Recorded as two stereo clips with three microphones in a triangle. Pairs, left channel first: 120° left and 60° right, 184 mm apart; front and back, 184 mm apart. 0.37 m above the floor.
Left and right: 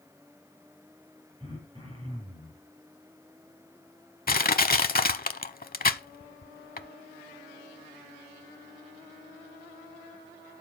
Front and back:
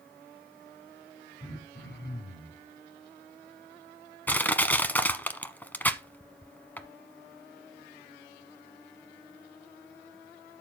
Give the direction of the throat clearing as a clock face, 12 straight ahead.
12 o'clock.